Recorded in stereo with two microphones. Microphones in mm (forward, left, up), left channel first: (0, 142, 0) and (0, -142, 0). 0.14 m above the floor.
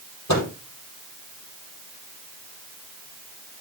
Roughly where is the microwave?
Left.